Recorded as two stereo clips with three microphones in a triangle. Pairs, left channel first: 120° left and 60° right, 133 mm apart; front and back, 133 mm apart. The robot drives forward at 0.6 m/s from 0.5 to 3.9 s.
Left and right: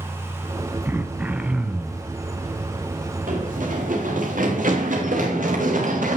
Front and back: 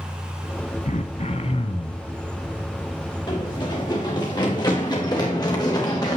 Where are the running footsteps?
55° right, 7 m; by 6.2 s 60° right, 5 m.